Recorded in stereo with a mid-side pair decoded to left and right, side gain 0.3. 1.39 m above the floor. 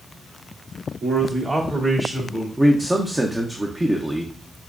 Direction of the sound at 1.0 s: 60° right.